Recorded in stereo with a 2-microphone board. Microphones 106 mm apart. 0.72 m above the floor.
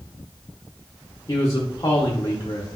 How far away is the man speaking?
About 0.7 m.